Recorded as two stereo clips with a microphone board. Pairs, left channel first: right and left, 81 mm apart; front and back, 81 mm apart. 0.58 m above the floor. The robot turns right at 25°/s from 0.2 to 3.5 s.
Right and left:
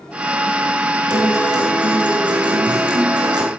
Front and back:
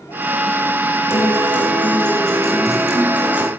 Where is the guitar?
55° left, 5 m; by 3.5 s 115° left, 5 m.